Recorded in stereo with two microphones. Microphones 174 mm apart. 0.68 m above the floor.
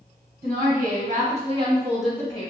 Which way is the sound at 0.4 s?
60° right (ahead or behind).